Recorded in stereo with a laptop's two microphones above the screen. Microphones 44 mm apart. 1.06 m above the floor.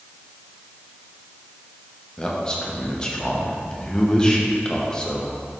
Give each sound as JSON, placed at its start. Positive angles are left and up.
{"t": 2.2, "sound": "a man speaking", "side_deg": 20, "distance_m": 0.8}